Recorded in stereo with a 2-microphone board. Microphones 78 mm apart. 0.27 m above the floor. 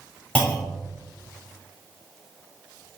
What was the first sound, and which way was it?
A clunk, 15° left (ahead or behind).